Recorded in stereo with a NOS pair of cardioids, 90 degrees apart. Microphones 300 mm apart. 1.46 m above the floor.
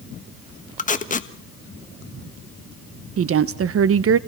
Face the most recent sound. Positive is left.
turn(degrees=-50)